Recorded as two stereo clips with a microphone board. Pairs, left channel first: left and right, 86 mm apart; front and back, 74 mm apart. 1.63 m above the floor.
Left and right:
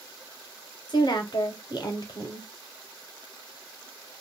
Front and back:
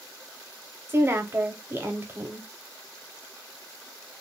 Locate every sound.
0.9 s a woman speaking: 120° left, 0.8 m